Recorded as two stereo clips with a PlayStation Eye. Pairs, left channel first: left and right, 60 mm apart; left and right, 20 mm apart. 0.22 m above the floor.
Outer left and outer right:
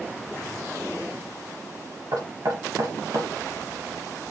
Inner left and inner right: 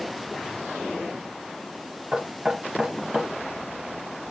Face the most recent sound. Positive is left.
turn(degrees=-70)  # may be behind; listen again after turning